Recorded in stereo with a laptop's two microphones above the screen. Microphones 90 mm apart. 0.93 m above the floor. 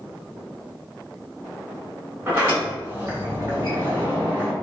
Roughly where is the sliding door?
Right.